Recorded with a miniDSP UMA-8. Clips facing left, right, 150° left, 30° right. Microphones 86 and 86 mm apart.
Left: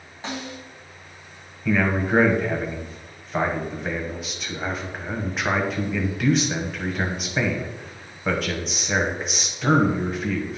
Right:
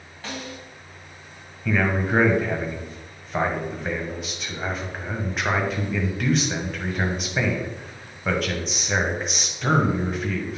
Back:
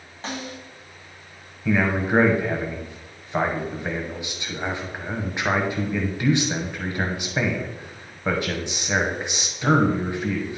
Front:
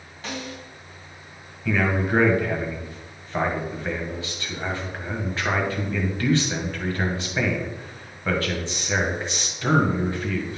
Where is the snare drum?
140° left, 1.6 m.